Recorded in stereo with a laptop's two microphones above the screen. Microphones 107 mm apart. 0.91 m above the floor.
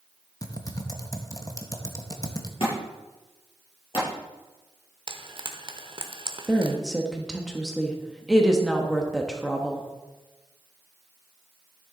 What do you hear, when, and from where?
0.4 s typing on a keyboard: 30° left (ahead or behind), 0.8 m
2.6 s a thud: 55° left (ahead or behind), 5.5 m
5.1 s frying: 50° right (ahead or behind), 0.8 m
6.5 s a woman speaking: centre (ahead or behind), 0.9 m